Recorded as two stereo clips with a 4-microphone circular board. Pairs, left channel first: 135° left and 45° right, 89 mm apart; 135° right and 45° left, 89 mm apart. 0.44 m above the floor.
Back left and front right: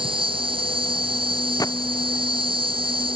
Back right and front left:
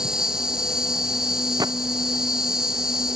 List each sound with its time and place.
0.0 s an insect: 40° right
1.6 s a gunshot: 90° left